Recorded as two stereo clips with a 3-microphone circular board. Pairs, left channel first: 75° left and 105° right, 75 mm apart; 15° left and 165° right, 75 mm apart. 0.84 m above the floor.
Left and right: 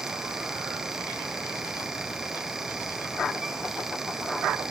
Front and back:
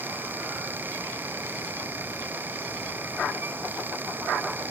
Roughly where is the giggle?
I don't hear a giggle.